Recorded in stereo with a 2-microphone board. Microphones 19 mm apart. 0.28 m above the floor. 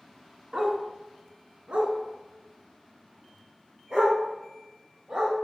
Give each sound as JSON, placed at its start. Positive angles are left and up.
{"t": 0.5, "sound": "a dog barking", "side_deg": -45, "distance_m": 0.8}